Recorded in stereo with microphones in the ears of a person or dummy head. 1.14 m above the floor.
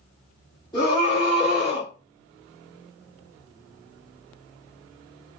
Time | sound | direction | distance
0.7 | a scream | 10° left (ahead or behind) | 1.6 m